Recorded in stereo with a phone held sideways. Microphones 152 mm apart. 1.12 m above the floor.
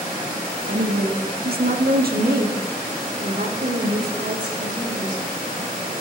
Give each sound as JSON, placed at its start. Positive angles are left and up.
{"t": 0.7, "sound": "a woman speaking", "side_deg": -75, "distance_m": 1.8}